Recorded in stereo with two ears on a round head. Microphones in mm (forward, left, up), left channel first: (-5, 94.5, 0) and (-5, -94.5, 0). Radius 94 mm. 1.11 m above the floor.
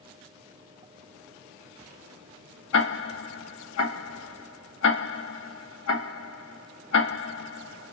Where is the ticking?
75° left (ahead or behind), 2.5 m.